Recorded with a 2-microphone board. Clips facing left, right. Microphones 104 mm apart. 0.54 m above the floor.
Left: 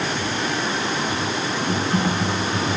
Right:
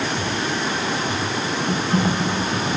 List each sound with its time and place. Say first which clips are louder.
1.7 s typing on a keyboard: right 1 dB; centre (ahead or behind), 1.1 m